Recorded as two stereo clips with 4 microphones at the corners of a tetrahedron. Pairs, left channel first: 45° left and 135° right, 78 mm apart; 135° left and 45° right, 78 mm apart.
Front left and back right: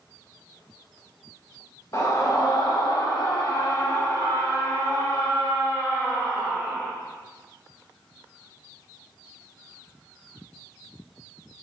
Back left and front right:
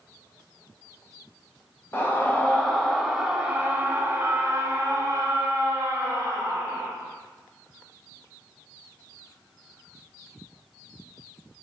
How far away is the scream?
About 1.4 m.